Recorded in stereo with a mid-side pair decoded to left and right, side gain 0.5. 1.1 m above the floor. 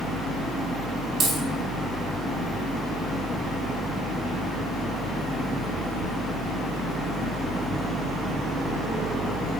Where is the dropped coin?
55° right, 2.5 m.